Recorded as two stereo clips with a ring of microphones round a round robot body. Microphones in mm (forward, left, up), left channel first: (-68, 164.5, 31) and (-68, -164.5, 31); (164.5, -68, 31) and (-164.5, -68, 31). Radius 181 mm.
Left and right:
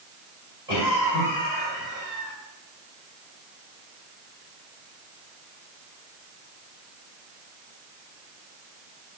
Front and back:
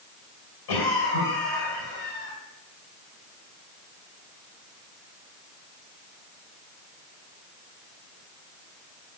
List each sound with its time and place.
0.7 s a cough: 10° right, 4 m